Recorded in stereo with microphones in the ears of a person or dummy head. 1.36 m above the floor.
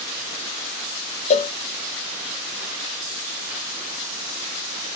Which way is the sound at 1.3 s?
40° left (ahead or behind).